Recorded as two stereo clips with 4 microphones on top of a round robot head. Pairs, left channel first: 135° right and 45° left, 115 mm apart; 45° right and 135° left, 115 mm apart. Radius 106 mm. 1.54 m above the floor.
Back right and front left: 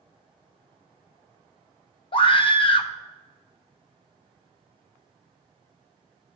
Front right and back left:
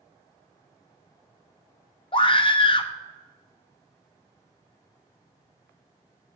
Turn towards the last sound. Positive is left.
turn(degrees=-90)